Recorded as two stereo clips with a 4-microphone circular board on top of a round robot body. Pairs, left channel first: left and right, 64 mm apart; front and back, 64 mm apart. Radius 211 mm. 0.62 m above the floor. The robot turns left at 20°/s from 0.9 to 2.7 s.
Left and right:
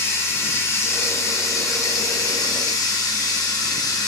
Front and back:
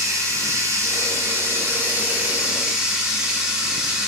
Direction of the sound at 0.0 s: 140° left.